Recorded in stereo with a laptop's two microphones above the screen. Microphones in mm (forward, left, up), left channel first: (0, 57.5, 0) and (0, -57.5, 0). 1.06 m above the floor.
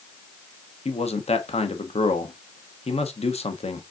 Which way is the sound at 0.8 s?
70° left (ahead or behind).